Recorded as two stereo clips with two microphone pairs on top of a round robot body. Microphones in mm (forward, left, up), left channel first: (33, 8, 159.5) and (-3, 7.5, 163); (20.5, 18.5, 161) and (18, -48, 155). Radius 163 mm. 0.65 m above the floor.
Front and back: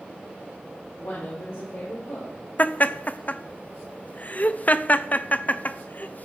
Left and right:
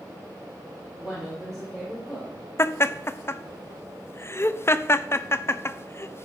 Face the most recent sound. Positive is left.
turn(degrees=35)